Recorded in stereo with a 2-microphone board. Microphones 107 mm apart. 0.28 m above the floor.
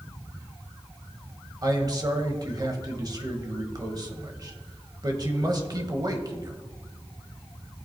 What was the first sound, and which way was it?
A man speaking, 40° right (ahead or behind).